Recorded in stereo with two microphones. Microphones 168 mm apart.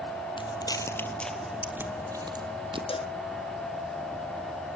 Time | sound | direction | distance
0.4 | footsteps | 30° left (ahead or behind) | 1.9 m
2.9 | a cowbell | 35° left (ahead or behind) | 0.5 m